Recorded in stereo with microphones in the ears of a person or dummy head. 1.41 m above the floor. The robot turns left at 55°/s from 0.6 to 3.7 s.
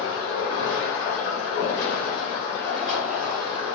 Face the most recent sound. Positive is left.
turn(degrees=-35)